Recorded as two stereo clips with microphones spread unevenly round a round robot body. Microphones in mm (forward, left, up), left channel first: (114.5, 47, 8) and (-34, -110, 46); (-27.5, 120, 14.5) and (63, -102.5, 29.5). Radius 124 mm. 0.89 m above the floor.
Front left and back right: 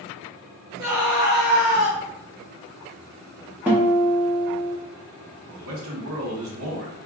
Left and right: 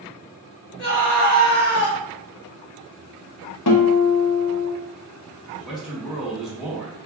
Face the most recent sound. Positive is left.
turn(degrees=-160)